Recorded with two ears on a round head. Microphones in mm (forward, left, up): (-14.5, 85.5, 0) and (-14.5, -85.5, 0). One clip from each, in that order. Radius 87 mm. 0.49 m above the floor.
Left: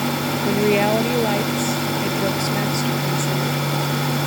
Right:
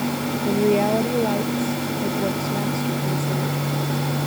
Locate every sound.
0.5 s a woman speaking: 50° left (ahead or behind)